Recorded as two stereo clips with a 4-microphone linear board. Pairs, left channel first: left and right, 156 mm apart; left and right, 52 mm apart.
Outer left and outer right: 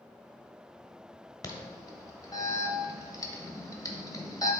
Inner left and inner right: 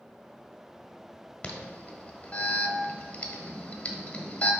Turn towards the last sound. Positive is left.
turn(degrees=25)  # may be behind; listen again after turning